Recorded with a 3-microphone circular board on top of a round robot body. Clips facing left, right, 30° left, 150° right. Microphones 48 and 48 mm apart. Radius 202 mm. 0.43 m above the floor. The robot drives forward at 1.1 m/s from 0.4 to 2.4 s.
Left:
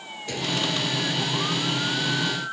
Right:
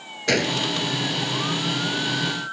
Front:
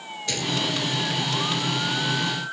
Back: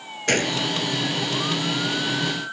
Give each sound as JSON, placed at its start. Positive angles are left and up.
{"t": 0.3, "sound": "a gunshot", "azimuth_deg": -105}